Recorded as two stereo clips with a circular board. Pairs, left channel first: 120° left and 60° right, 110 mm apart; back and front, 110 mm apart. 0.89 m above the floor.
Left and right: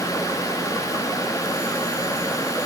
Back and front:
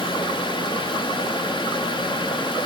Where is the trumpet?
No trumpet in this recording.